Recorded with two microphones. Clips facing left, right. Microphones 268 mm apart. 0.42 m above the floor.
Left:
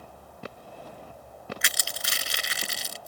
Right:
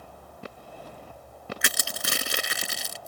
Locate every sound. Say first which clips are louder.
1.6 s crushing: right 5 dB; 60° right (ahead or behind)